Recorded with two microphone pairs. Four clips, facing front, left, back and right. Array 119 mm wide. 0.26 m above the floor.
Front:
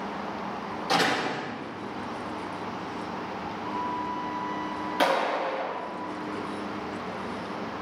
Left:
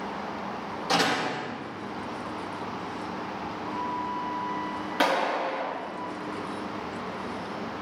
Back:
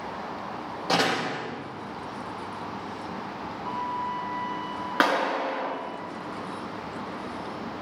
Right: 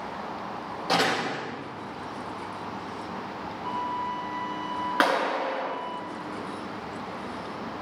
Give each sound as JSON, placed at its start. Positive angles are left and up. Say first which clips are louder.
{"t": 0.9, "sound": "a door slam", "louder": "even, even", "azimuth_deg": -140, "distance_m": 5.5}
{"t": 3.6, "sound": "a flute", "louder": "right 2 dB, back 1 dB", "azimuth_deg": -105, "distance_m": 1.8}
{"t": 5.0, "sound": "a clap", "louder": "even, back 1 dB", "azimuth_deg": -145, "distance_m": 3.5}